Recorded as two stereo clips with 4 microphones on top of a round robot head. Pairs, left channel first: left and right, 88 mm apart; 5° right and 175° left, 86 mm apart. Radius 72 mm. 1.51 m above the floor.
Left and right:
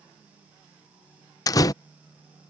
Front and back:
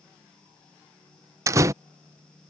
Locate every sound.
1.5 s a door slam: 130° left